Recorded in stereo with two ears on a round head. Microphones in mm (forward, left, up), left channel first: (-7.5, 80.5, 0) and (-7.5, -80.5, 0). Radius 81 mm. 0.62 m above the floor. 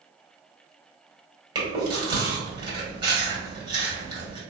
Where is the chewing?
25° right (ahead or behind), 1.3 m.